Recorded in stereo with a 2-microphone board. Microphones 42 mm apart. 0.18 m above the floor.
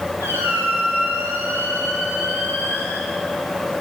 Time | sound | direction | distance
0.2 | a squeak | 80° right | 9.5 m